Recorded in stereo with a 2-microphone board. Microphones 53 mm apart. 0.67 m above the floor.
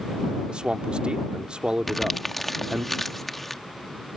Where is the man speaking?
20° right (ahead or behind).